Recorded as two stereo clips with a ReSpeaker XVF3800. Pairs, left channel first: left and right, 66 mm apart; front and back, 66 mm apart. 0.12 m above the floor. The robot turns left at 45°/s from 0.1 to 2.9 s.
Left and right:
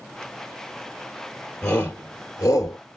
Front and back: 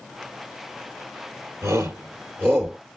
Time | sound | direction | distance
1.6 | a shout | 160° left | 3 m